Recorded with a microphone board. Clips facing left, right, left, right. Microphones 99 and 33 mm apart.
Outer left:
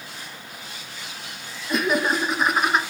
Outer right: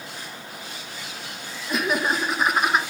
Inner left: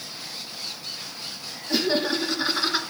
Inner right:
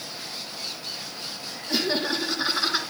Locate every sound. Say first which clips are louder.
1.7 s laughter: outer left 2 dB, inner left 2 dB; centre (ahead or behind), 1.8 m